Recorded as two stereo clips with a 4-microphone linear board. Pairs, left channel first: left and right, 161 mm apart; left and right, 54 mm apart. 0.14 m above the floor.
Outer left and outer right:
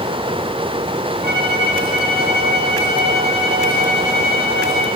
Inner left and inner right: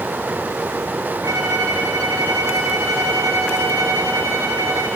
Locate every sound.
1.2 s a violin: 90° right, 6.5 m